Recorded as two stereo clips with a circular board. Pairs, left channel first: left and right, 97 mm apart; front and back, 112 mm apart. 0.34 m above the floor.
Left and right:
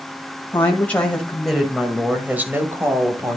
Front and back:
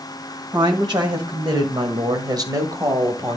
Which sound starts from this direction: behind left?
A woman speaking, at 0.5 s.